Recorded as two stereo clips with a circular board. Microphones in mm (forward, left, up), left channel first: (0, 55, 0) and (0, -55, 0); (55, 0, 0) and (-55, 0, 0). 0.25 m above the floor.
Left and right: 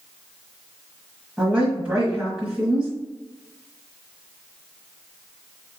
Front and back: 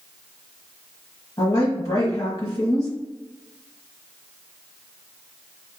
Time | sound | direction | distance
1.4 | a woman speaking | 20° right | 1.4 m